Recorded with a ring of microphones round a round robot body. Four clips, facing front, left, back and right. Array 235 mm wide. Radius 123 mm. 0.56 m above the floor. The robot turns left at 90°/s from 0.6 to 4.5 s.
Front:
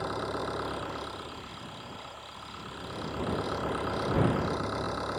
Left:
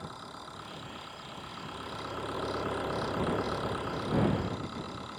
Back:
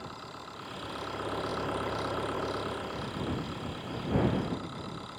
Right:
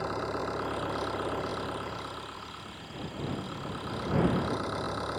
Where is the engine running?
50° right; by 5.2 s 45° right.